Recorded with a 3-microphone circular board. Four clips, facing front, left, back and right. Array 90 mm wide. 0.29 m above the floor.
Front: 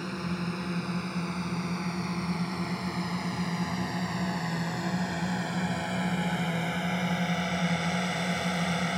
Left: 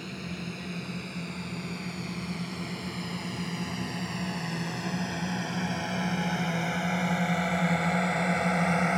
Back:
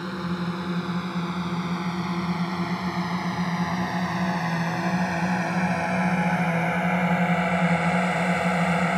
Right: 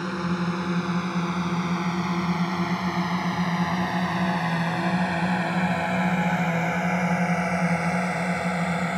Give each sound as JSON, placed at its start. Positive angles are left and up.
{"t": 0.0, "sound": "a drone", "azimuth_deg": -110}